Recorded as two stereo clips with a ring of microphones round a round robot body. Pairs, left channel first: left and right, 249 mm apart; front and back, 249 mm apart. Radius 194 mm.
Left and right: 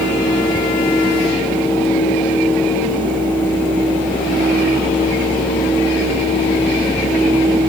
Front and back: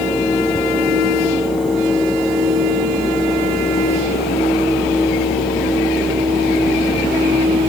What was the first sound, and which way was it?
Only background noise.